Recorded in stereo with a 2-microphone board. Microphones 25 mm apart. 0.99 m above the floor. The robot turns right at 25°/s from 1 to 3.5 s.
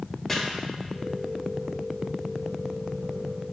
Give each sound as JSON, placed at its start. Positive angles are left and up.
{"t": 0.3, "sound": "chopping", "side_deg": 10, "distance_m": 0.7}